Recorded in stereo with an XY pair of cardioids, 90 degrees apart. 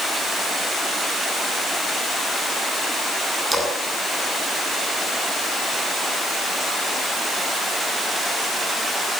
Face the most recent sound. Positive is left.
turn(degrees=-15)